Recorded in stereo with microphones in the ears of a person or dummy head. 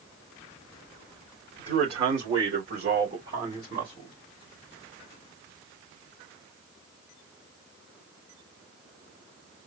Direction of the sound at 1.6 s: 45° right (ahead or behind).